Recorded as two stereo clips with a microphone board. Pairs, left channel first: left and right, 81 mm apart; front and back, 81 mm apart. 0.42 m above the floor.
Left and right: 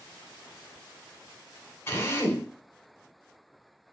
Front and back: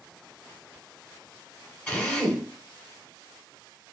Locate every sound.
1.9 s a drill: 65° left, 1.5 m